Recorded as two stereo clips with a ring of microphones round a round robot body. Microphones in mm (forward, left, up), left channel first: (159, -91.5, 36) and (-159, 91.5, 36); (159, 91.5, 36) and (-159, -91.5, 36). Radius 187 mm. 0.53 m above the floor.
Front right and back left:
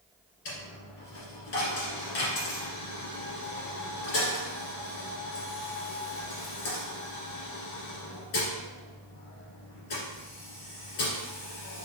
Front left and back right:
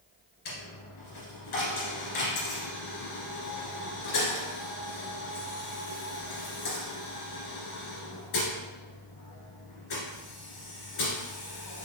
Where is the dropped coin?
5° right, 1.9 m.